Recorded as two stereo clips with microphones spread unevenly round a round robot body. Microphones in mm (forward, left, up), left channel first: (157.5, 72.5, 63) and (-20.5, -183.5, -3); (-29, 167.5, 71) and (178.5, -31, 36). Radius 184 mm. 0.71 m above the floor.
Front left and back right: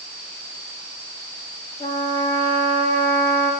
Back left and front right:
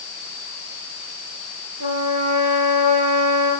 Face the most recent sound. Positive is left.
turn(degrees=-20)